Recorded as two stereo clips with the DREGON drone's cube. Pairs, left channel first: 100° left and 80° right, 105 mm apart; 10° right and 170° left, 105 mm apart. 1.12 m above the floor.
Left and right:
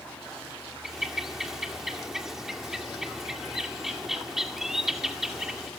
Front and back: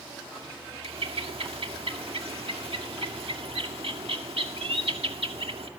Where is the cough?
I don't hear a cough.